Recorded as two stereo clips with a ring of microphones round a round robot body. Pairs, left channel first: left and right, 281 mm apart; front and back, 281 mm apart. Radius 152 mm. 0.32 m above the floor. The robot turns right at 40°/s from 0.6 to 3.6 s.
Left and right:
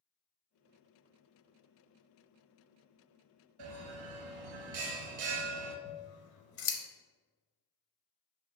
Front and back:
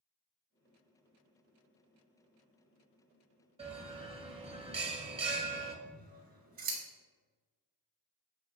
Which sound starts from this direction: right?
A bell, at 3.6 s.